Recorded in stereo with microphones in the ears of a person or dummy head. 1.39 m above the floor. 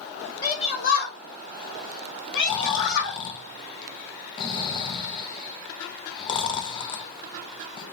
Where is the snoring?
30° left (ahead or behind), 0.6 m.